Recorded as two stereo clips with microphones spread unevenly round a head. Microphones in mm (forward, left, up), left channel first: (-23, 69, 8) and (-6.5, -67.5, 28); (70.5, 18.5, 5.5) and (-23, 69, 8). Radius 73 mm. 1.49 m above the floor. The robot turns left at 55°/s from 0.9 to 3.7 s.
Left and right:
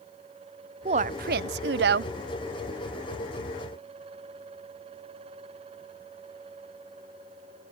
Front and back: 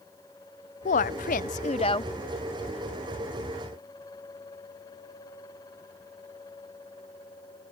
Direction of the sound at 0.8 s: 35° right.